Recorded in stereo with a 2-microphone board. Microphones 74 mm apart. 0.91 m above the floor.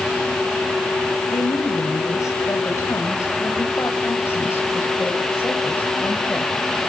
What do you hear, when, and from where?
1.3 s a woman speaking: 50° left (ahead or behind), 6 m; by 6.5 s 25° left (ahead or behind), 5.5 m